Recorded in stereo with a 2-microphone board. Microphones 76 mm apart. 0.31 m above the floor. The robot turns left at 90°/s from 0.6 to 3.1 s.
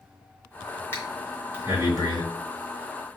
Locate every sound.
0.9 s breathing: 25° left (ahead or behind), 1.8 m; by 2.2 s 60° right (ahead or behind), 1.8 m